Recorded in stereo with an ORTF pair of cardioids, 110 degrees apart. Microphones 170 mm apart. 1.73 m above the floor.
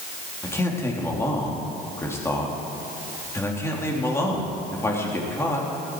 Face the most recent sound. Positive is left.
turn(degrees=15)